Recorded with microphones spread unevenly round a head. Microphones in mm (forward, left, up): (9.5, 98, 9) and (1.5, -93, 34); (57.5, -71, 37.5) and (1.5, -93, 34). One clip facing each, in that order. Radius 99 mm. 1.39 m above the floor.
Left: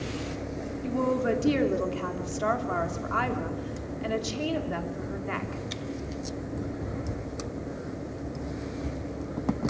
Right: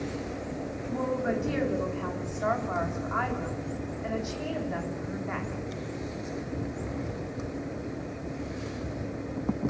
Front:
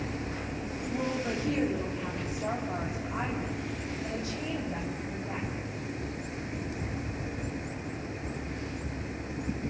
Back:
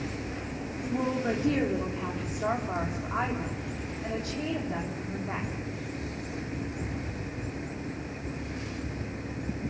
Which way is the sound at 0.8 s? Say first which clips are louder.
Left 4 dB, back 3 dB; 135° left.